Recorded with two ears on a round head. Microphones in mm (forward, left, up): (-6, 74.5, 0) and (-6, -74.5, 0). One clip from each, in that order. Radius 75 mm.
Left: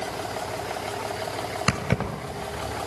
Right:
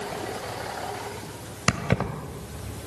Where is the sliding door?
I don't hear a sliding door.